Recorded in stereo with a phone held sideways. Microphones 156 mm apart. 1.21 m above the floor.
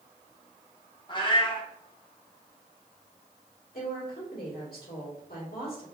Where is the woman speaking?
75° left (ahead or behind), 1.6 m.